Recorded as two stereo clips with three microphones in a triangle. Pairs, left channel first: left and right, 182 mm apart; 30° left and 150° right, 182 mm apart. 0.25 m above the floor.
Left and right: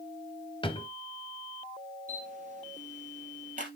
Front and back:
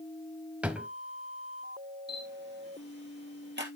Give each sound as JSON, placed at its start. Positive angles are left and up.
{"t": 0.6, "sound": "a drawer", "azimuth_deg": 130, "distance_m": 0.9}
{"t": 2.1, "sound": "a camera shutter", "azimuth_deg": -135, "distance_m": 2.0}